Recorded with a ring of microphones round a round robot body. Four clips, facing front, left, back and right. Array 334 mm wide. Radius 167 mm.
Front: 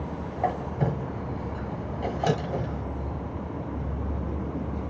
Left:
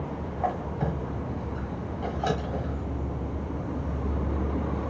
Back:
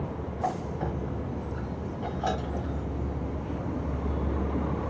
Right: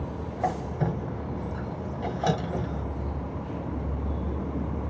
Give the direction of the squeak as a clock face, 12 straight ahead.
1 o'clock.